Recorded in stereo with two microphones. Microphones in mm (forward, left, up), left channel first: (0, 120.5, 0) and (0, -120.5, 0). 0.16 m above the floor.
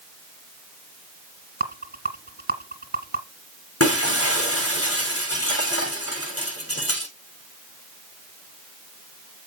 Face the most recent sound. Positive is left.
turn(degrees=70)  # may be behind; listen again after turning